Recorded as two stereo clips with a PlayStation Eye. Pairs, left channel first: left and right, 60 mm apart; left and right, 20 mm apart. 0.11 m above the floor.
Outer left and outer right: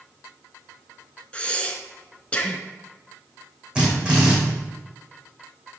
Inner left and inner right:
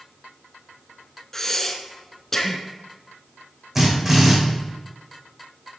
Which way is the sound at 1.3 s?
20° left (ahead or behind).